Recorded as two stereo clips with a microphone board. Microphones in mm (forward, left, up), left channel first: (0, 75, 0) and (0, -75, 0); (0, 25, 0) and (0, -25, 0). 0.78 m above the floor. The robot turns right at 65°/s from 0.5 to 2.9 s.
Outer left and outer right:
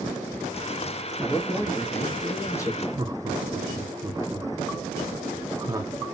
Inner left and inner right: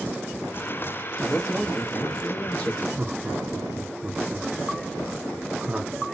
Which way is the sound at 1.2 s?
5° left (ahead or behind).